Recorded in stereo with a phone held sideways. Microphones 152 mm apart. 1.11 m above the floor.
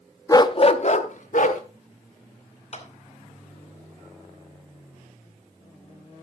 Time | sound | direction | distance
0.3 | a dog barking | 20° left (ahead or behind) | 0.5 m
2.7 | a clap | 45° left (ahead or behind) | 2.5 m